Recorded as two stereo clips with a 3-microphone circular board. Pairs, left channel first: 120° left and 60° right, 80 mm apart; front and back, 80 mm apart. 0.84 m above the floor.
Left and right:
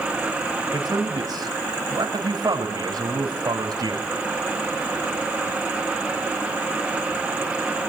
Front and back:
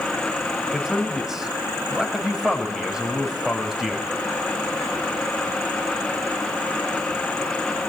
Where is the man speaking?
95° right, 4.5 m.